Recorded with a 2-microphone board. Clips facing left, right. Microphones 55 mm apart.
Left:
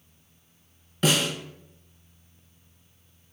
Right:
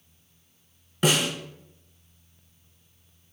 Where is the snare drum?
15° right (ahead or behind), 0.7 m.